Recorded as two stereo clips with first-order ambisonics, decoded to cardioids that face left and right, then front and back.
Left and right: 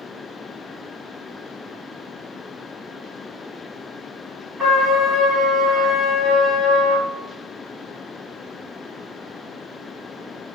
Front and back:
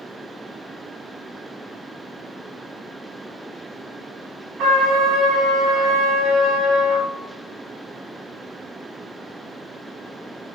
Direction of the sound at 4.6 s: 175° right.